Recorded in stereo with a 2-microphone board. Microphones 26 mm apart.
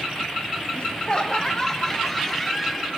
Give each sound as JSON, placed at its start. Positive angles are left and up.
{"t": 0.8, "sound": "laughter", "side_deg": 40, "distance_m": 0.9}